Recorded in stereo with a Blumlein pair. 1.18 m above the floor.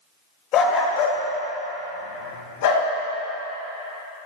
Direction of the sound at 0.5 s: 35° left.